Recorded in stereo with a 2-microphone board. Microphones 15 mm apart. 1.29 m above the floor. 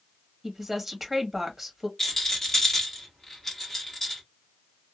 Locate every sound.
0.4 s a woman speaking: 10° right (ahead or behind), 1.7 m
2.0 s a rattle: 25° left (ahead or behind), 2 m